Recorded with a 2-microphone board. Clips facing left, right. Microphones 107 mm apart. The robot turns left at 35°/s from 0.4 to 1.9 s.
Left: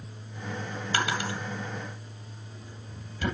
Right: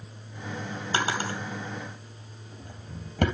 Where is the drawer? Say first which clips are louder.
Right 1 dB; 25° right (ahead or behind), 2.5 m; by 3.2 s 60° right (ahead or behind), 2.5 m.